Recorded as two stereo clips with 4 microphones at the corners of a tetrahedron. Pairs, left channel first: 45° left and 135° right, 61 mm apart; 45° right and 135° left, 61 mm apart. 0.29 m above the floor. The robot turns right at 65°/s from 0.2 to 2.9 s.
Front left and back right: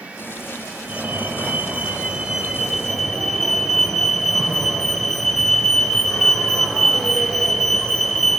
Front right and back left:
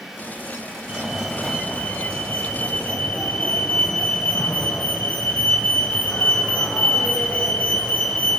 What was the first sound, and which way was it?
A fire alarm, 160° right.